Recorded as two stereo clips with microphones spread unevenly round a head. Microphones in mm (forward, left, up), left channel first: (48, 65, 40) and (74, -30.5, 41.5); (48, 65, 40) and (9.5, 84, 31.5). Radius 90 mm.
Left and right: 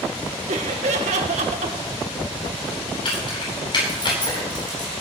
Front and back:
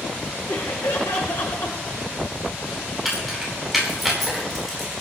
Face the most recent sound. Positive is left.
turn(degrees=65)